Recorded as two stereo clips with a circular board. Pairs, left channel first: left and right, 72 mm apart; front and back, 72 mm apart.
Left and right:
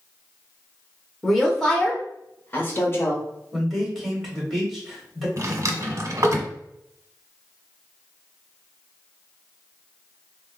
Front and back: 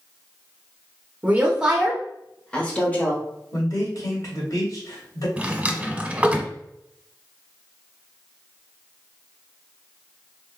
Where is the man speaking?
Straight ahead, 1.9 m.